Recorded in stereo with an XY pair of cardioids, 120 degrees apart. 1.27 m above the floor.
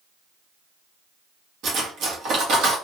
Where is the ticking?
No ticking in this recording.